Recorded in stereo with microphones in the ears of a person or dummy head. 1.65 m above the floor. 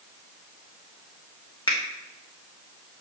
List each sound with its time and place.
1.7 s a finger snap: 20° left (ahead or behind), 1.5 m